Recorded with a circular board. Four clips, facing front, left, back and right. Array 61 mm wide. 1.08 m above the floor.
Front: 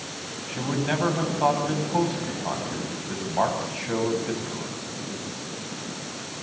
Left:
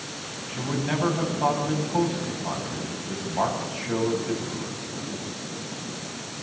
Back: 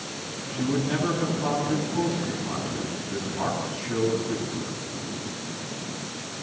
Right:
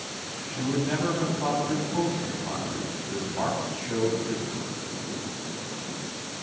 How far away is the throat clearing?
No throat clearing in this recording.